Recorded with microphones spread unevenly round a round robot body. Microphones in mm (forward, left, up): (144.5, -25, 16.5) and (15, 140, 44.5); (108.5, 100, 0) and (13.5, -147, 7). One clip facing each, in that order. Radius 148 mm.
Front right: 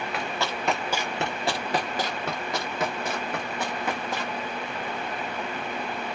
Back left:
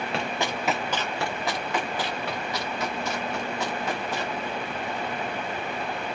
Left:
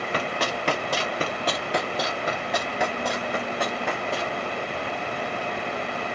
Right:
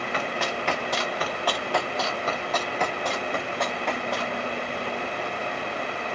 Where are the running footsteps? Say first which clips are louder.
Back left 2 dB, left 2 dB; 100° left, 0.7 m; by 4.4 s 15° right, 2 m.